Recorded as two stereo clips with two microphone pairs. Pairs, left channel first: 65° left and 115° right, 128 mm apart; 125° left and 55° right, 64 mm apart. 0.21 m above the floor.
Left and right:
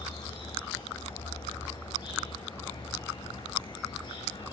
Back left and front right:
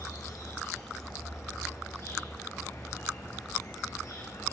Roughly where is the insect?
Left.